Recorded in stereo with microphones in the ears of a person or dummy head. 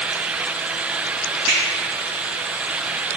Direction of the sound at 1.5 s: 65° right (ahead or behind).